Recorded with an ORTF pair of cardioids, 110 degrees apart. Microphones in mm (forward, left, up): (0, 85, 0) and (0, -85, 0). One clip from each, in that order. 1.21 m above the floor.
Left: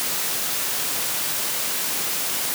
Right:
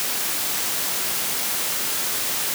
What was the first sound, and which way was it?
Only background noise.